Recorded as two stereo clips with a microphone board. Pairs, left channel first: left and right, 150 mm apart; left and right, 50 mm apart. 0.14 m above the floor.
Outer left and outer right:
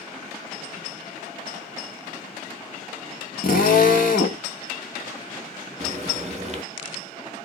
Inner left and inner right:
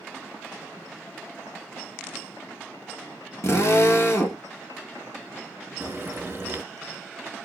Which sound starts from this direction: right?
Frying, at 5.8 s.